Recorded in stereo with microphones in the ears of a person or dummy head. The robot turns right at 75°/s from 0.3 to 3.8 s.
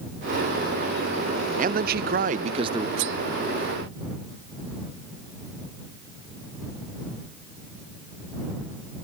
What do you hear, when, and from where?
1.6 s a man speaking: 115° right; by 2.9 s 20° right
3.0 s cutlery clinking: 65° right (ahead or behind); by 3.2 s 70° right (ahead or behind)